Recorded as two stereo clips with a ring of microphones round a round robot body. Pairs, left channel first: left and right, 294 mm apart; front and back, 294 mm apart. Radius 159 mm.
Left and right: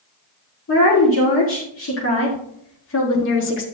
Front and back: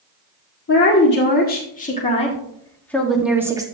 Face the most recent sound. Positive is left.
turn(degrees=110)